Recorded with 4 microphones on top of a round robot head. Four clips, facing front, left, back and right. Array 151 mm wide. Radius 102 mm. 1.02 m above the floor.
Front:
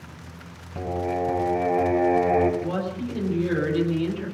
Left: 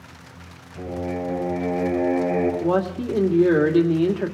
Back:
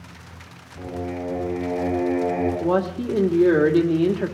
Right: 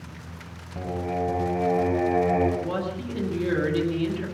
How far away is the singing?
About 5 m.